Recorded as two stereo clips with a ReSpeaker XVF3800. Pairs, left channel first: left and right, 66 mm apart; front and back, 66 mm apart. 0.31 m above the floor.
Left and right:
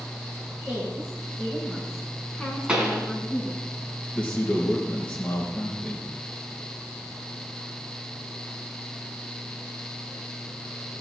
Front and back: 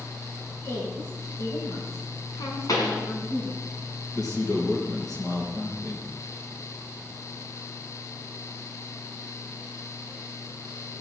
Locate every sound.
0.7 s a woman speaking: 10° right, 5 m; by 3.6 s 10° left, 3.5 m
2.7 s a pop: 20° right, 2.5 m
4.1 s a man speaking: 15° left, 4.5 m